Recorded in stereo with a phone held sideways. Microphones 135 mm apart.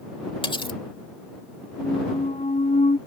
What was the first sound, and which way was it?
Cutlery clinking, 40° left (ahead or behind).